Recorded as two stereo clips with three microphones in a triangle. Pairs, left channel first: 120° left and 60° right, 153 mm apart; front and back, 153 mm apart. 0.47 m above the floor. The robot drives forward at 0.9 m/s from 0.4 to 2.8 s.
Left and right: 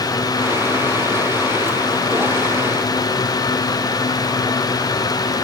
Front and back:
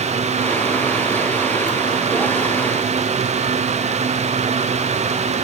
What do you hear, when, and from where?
Only background noise.